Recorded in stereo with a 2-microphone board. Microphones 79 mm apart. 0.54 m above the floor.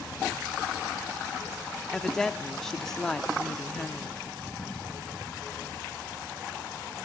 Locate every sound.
1.9 s a woman speaking: 5° left (ahead or behind), 0.7 m